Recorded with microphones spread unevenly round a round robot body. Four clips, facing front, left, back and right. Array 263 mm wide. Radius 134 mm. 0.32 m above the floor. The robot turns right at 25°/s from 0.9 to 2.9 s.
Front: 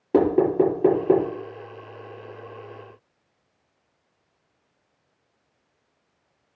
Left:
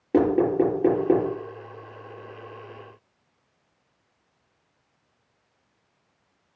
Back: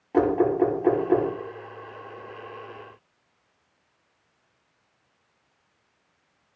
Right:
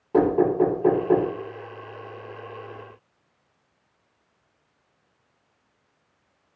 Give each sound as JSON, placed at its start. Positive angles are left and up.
{"t": 0.1, "sound": "knocking", "azimuth_deg": 30, "distance_m": 7.0}